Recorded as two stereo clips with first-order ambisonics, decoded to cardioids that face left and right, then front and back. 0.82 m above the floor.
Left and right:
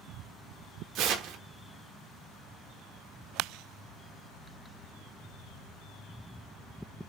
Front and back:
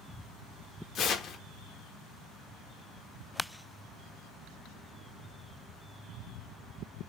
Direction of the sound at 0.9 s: 55° right.